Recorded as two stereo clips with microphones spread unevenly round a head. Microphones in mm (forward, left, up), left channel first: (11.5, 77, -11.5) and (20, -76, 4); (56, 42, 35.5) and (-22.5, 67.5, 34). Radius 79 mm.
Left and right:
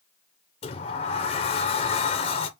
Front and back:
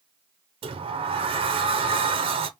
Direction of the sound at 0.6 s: 150° left.